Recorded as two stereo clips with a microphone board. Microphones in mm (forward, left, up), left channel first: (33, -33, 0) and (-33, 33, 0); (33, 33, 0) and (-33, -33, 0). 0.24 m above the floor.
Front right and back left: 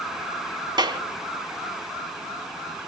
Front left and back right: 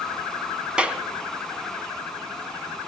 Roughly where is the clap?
Behind left.